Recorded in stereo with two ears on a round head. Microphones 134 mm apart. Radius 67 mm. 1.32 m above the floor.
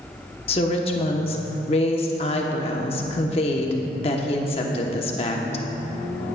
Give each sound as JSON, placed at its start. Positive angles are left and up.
{"t": 0.5, "sound": "a woman speaking", "side_deg": 40, "distance_m": 1.1}